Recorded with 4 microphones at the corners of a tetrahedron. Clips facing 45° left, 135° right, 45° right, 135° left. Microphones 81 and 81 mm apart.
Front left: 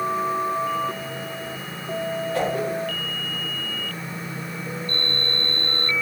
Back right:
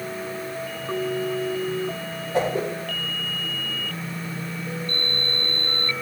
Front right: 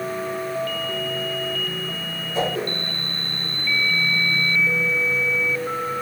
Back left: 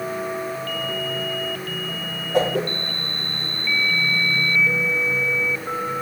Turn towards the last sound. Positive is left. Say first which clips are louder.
# back right 3 dB, back left 4 dB
turn(degrees=155)